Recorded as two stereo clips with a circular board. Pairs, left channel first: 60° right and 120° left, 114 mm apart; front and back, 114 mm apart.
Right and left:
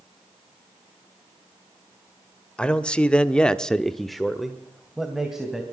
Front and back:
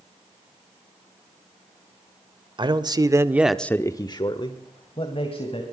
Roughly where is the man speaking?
Behind right.